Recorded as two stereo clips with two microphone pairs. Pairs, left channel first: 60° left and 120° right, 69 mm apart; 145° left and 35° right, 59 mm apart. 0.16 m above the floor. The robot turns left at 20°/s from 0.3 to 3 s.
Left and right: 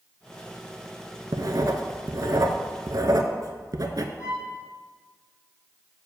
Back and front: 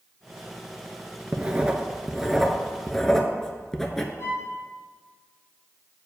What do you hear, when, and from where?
1.3 s writing: 100° right, 0.6 m; by 4.1 s 135° right, 0.6 m
4.2 s a violin: 95° left, 3 m